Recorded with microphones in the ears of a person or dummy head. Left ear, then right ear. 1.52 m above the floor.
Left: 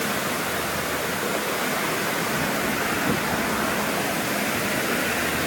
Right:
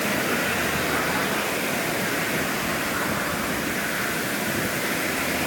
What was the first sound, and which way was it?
Only background noise.